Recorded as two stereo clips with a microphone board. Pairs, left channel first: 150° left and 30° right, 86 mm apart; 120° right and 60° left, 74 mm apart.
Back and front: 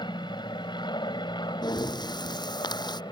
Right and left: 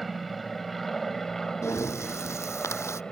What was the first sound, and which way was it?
An aircraft, 150° left.